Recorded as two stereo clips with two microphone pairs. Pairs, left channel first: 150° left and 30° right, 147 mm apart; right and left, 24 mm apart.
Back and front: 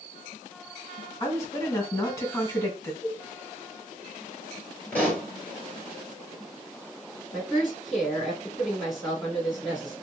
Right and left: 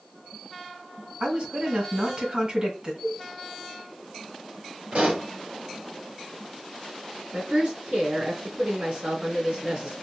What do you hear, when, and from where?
1.2 s a woman speaking: 95° left, 2 m
3.0 s a cowbell: 85° left, 0.9 m
4.9 s a pop: 75° left, 2 m
7.3 s a woman speaking: 60° left, 2 m